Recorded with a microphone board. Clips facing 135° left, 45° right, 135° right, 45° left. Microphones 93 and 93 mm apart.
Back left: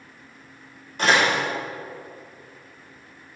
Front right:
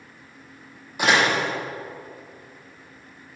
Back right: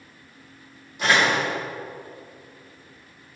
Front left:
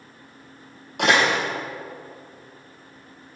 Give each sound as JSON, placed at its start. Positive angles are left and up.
{"t": 1.0, "sound": "a door slam", "azimuth_deg": 35, "distance_m": 3.0}